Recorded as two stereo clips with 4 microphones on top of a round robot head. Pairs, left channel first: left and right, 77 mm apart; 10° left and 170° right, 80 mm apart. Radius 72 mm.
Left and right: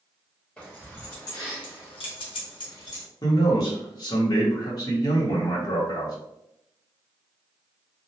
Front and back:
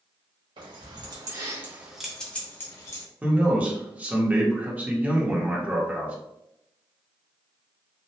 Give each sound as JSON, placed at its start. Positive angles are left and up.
{"t": 0.6, "sound": "keys jangling", "azimuth_deg": 165, "distance_m": 1.0}
{"t": 3.2, "sound": "a man speaking", "azimuth_deg": 120, "distance_m": 1.0}